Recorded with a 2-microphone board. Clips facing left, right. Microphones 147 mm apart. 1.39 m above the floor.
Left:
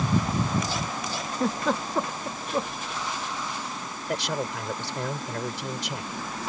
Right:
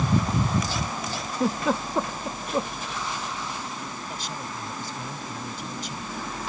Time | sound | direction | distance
1.3 | a giggle | 5° right (ahead or behind) | ?
4.1 | a man speaking | 80° left | ?